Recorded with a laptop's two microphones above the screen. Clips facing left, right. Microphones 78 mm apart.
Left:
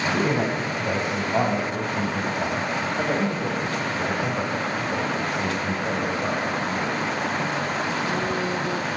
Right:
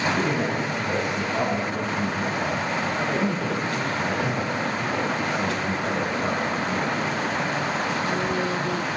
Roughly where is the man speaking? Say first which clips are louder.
Left 1 dB; left.